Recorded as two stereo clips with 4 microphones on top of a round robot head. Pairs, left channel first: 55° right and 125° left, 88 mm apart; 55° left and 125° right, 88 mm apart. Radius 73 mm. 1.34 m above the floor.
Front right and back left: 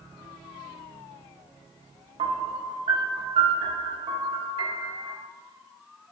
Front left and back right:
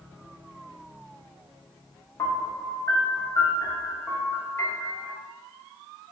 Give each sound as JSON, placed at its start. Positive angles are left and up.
{"t": 2.2, "sound": "a piano", "azimuth_deg": 115, "distance_m": 0.5}